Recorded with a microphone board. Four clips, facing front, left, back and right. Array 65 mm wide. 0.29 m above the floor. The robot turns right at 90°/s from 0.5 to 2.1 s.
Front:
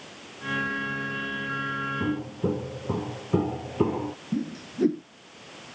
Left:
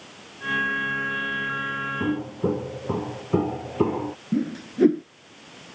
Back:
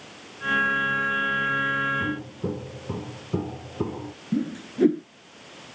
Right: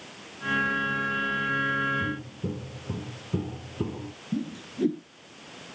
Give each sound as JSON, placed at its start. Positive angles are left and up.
{"t": 2.0, "sound": "footsteps", "azimuth_deg": 75}
{"t": 4.3, "sound": "a whoosh", "azimuth_deg": 110}